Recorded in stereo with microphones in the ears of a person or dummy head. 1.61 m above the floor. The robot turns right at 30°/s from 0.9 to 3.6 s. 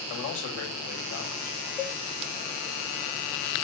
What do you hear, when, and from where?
0.1 s a man speaking: 80° left, 3.5 m
1.8 s a cowbell: 10° left (ahead or behind), 1.0 m; by 2.0 s 5° left (ahead or behind), 1.0 m